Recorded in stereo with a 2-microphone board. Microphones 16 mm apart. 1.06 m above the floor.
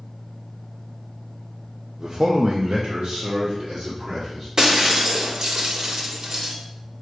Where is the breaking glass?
45° right (ahead or behind), 1.4 m.